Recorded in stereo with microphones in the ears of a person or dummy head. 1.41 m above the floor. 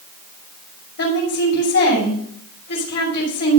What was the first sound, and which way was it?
A woman speaking, 60° left (ahead or behind).